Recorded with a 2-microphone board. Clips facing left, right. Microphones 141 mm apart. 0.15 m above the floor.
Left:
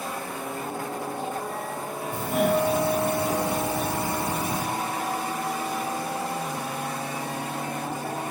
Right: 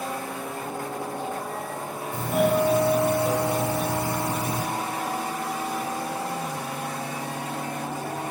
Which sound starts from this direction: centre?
A doorbell, at 2.1 s.